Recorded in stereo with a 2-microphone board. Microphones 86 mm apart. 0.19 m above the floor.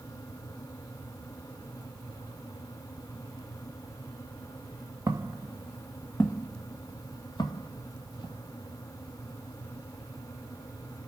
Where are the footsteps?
45° right (ahead or behind), 0.8 m; by 8.4 s 55° left (ahead or behind), 2 m.